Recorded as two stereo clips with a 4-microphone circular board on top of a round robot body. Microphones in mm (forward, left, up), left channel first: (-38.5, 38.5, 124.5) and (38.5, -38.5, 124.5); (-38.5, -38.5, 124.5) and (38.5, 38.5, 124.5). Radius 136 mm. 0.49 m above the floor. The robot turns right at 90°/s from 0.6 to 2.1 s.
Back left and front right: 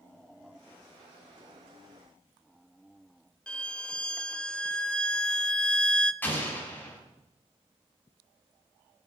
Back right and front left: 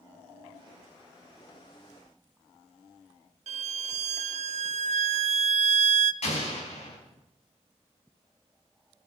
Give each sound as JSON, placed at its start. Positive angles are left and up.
{"t": 3.5, "sound": "a violin", "azimuth_deg": 55, "distance_m": 0.6}
{"t": 6.2, "sound": "an explosion", "azimuth_deg": -150, "distance_m": 5.0}